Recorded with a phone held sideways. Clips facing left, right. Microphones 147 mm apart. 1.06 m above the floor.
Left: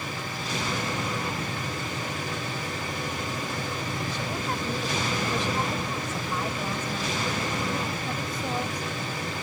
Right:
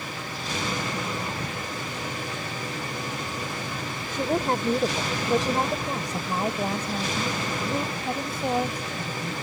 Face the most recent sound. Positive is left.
turn(degrees=-30)  # may be behind; listen again after turning